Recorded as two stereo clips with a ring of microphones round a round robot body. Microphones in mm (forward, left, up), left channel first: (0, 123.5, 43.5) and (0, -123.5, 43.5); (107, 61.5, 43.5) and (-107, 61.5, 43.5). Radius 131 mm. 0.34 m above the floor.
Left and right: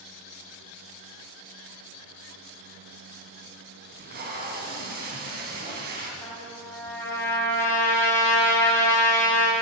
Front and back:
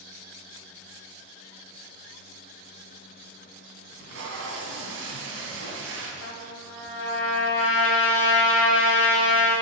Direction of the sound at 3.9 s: 145° right.